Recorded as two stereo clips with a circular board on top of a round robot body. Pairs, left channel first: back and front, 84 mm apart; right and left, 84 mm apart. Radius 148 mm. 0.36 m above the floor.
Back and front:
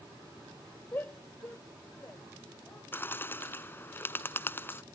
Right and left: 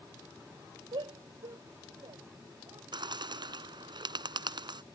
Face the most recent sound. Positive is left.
turn(degrees=115)